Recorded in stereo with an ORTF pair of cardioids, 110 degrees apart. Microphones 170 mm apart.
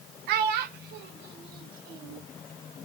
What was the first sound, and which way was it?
A child speaking, 65° right.